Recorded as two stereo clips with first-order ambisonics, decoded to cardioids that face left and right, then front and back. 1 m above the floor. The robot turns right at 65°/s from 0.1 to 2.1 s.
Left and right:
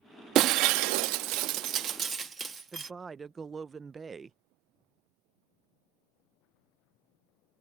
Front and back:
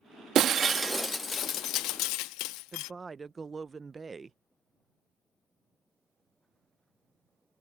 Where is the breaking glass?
130° right; by 2.9 s 20° right.